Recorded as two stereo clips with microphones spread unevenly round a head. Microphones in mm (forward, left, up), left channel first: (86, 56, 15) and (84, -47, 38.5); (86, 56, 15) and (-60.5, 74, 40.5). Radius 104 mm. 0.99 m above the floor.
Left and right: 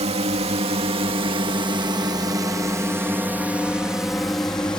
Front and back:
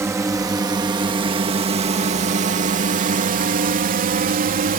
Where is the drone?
110° right; by 4.8 s 160° left.